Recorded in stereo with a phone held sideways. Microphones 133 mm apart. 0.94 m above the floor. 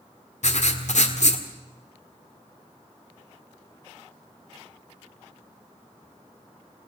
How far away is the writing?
About 1.9 m.